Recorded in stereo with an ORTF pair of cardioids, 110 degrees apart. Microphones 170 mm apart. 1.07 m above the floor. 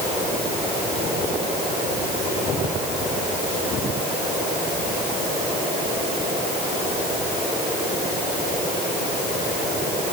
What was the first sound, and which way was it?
Only background noise.